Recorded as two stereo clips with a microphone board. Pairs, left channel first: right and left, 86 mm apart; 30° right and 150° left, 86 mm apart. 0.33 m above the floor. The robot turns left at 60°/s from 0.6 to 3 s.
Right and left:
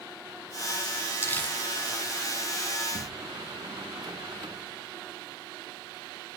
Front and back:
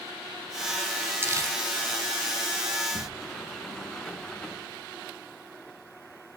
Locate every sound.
1.2 s crumpling: 150° right, 2.5 m; by 1.6 s 170° right, 2.5 m
2.9 s a sliding door: 60° left, 2.0 m; by 4.7 s 55° left, 2.0 m